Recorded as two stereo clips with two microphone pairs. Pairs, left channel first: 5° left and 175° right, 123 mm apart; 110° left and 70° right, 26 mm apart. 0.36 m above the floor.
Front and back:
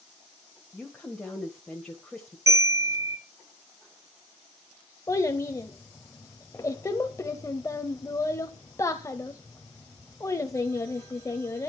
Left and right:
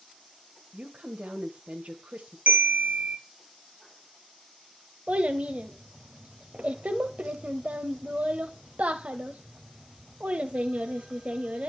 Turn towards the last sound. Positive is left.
turn(degrees=-60)